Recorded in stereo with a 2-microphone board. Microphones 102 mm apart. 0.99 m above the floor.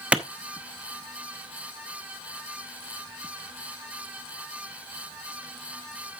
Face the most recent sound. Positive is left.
turn(degrees=-10)  # may be behind; listen again after turning